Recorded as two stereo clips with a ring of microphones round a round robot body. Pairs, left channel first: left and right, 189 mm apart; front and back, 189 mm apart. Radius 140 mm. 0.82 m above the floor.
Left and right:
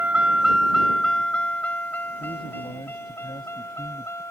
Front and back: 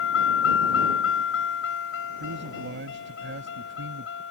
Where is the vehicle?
10° right; by 4.3 s 15° left.